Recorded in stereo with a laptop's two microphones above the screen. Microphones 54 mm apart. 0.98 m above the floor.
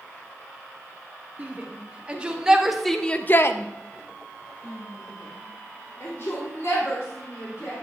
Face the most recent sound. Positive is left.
turn(degrees=55)  # may be behind; listen again after turning